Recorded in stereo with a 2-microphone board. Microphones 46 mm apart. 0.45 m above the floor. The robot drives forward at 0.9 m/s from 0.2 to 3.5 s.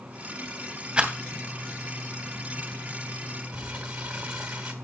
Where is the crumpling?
20° right (ahead or behind), 2.5 m.